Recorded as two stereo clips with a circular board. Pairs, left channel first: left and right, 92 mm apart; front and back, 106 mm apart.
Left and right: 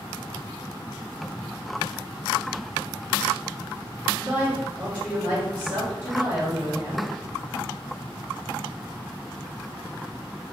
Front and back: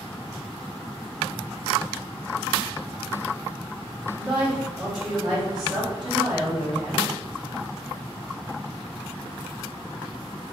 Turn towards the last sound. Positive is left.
turn(degrees=-95)